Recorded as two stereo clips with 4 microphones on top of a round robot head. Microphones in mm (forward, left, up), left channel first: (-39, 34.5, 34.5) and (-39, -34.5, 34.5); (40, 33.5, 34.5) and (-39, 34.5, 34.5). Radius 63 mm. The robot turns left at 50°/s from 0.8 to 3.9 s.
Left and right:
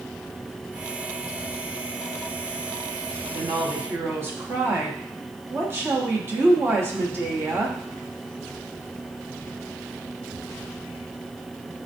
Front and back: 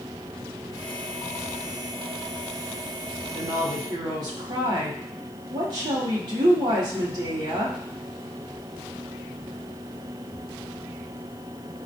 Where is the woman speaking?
120° right, 0.7 m; by 7.8 s 145° right, 0.7 m.